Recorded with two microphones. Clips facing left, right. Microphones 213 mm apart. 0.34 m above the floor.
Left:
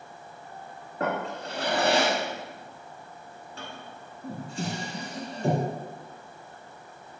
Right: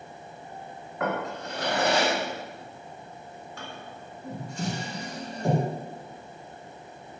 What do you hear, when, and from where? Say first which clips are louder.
1.0 s a drawer: even; 35° left (ahead or behind), 1.1 m